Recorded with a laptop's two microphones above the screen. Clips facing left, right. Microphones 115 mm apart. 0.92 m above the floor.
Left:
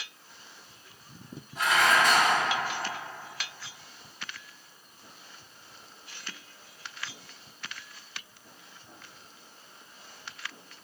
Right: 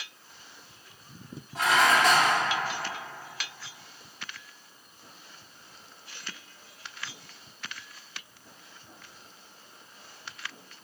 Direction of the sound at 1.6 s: 80° right.